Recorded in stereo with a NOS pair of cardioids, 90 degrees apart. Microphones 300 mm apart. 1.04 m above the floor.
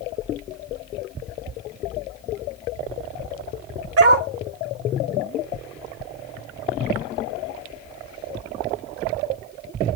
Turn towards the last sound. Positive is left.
turn(degrees=-50)